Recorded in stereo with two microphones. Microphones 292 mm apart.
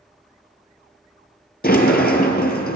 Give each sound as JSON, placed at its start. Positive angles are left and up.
{"t": 1.6, "sound": "a sliding door", "side_deg": 30, "distance_m": 0.9}